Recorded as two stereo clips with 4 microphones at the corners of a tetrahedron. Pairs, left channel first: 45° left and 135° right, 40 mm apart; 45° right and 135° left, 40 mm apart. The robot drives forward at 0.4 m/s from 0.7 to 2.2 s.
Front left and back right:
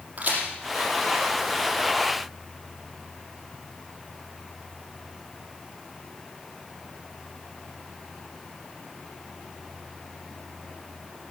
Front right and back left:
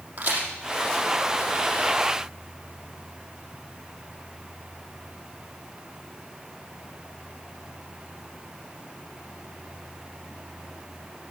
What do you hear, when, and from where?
0.2 s a crack: 175° left, 4.5 m